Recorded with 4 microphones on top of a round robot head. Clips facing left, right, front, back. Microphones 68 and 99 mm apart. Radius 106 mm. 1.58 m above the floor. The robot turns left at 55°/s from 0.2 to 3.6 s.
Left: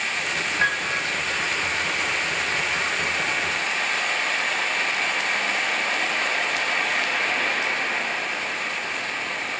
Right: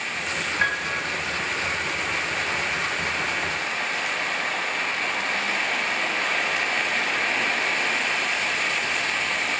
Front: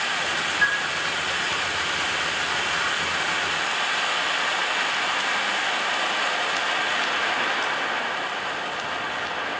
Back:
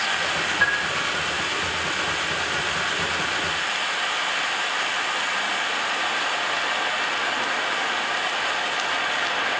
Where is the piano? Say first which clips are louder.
Left 1 dB, back 1 dB; 165° right, 1.1 m; by 1.0 s 170° left, 1.1 m.